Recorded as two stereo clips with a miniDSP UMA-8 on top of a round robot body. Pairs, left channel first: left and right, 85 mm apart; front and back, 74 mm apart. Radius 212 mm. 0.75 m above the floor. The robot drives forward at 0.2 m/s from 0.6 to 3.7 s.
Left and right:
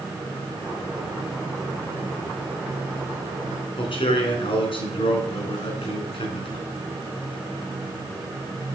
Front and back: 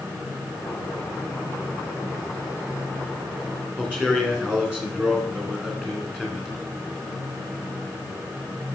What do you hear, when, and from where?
3.8 s a man speaking: 100° left, 3.5 m